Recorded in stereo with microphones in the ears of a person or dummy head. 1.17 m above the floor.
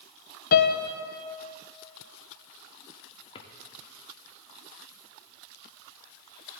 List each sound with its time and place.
0.5 s a piano: 40° left (ahead or behind), 0.6 m
3.4 s a drawer: 20° left (ahead or behind), 1.0 m